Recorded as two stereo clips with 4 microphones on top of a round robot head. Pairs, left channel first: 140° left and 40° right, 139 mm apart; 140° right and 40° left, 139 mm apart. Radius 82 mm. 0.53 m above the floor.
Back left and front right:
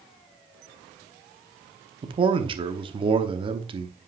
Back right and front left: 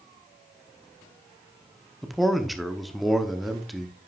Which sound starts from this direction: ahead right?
A man speaking, at 2.0 s.